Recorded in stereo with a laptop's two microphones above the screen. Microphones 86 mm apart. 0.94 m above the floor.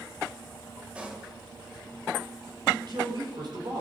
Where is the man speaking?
60° right (ahead or behind), 3.5 m.